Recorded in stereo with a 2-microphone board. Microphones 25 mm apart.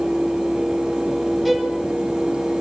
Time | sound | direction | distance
1.4 | a violin | centre (ahead or behind) | 1.7 m